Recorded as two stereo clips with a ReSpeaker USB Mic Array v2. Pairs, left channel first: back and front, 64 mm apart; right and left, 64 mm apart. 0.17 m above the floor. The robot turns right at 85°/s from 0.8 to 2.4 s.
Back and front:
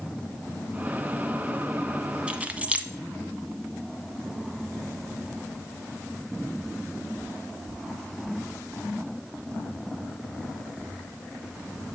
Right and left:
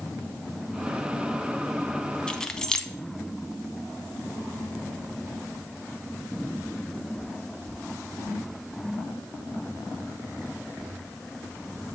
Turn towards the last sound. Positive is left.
turn(degrees=-25)